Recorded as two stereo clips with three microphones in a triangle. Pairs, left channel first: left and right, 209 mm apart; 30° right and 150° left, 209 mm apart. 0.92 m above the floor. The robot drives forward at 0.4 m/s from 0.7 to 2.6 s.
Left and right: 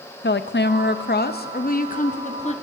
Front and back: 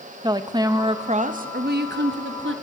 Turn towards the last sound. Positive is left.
turn(degrees=145)